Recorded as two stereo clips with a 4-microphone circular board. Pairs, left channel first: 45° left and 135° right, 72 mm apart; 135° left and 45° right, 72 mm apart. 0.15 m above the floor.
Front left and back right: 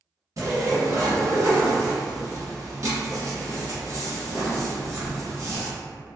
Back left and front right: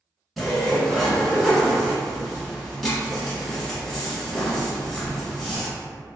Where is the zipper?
135° right, 1.3 m.